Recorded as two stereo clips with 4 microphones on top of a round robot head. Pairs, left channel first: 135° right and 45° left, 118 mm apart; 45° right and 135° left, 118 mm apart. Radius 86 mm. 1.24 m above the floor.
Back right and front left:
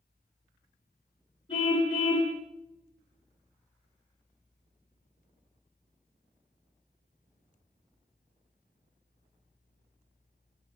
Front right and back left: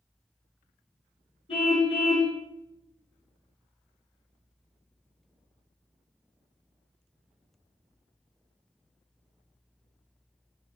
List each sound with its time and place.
1.5 s a car horn: 85° right, 7.5 m